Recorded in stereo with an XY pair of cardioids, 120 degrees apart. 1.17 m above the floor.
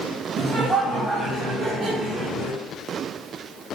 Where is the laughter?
60° right, 1.8 m; by 2.6 s 40° right, 3.5 m.